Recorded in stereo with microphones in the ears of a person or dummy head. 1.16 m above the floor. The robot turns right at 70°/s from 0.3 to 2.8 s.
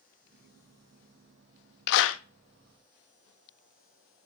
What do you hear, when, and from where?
1.9 s a clap: 60° left (ahead or behind), 1.1 m; by 2.2 s 80° left, 1.1 m